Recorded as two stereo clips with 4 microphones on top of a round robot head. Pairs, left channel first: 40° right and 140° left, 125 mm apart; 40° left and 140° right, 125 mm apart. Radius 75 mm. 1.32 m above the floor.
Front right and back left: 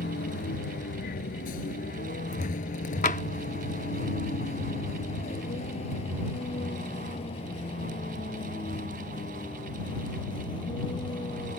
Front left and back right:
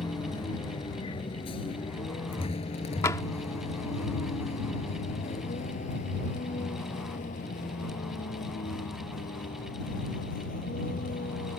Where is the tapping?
25° right.